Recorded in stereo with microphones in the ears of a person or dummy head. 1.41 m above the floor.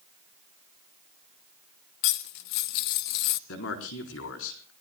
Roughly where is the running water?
I don't hear running water.